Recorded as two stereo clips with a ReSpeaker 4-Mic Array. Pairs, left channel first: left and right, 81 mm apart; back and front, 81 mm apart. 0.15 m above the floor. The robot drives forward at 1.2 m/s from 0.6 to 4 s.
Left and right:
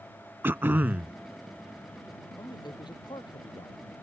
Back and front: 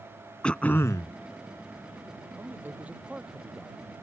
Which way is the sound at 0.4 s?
120° right.